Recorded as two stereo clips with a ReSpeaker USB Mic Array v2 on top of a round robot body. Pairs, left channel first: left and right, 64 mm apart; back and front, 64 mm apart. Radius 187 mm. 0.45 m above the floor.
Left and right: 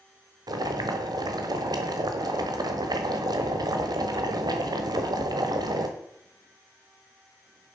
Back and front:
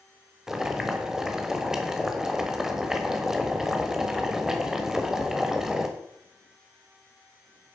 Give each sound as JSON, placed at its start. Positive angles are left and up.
{"t": 0.5, "sound": "boiling", "azimuth_deg": -85, "distance_m": 1.1}